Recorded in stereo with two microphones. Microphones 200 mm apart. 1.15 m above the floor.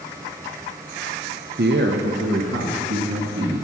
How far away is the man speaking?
About 0.6 m.